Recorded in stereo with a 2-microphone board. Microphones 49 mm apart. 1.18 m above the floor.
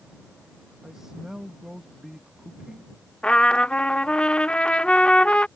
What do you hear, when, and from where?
0.8 s a man speaking: 10° right (ahead or behind)
3.2 s a trumpet: 20° left (ahead or behind)